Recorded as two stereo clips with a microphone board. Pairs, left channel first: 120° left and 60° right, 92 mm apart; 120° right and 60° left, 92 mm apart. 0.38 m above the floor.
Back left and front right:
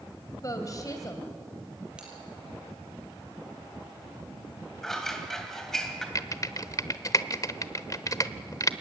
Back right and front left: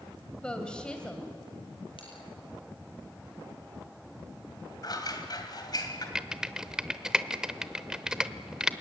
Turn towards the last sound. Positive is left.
turn(degrees=140)